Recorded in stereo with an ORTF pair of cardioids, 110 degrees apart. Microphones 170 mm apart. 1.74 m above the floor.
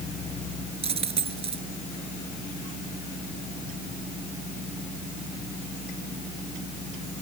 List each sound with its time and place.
0.8 s a dropped coin: 35° right